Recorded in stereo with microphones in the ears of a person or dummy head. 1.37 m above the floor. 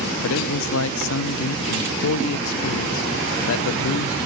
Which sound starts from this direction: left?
A man speaking, at 0.2 s.